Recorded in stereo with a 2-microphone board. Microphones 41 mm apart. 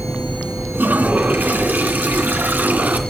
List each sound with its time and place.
0.7 s a toilet flushing: 50° right (ahead or behind), 2 m